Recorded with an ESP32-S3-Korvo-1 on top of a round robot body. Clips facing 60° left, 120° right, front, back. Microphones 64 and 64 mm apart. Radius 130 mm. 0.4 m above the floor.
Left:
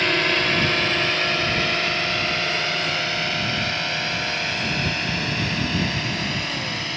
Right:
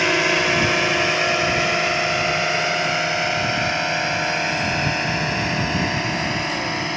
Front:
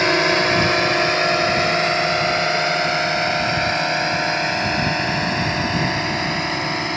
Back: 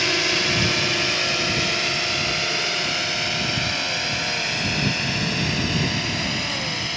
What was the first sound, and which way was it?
A drone, 45° right.